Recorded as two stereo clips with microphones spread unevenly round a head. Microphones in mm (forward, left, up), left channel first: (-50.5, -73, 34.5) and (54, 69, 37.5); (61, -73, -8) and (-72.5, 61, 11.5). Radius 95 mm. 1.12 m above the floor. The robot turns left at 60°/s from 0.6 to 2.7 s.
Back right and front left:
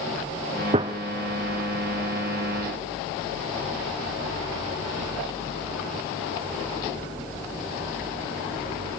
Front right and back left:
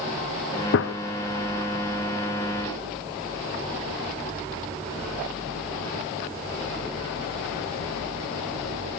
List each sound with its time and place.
0.7 s a gunshot: 10° right, 0.7 m; by 0.9 s 20° right, 0.7 m